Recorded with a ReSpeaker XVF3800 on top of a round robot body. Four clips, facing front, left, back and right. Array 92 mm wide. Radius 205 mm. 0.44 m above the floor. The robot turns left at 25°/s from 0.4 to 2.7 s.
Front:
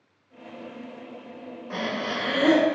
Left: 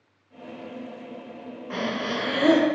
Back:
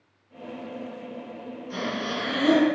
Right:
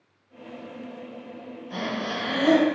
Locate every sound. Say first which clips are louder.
1.7 s breathing: left 2 dB, front 1 dB; 60° left, 2 m; by 2.7 s 35° left, 2 m